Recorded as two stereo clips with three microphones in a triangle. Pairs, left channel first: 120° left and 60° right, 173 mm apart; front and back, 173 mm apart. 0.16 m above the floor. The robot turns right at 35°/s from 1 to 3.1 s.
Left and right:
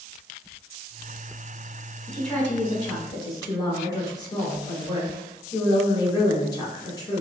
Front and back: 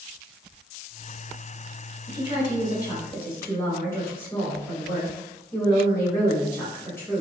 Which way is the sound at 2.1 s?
30° left.